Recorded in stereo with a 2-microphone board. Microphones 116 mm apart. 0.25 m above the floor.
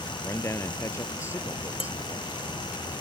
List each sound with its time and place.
0.2 s a man speaking: 20° left (ahead or behind)
1.8 s dishes clattering: 50° left (ahead or behind)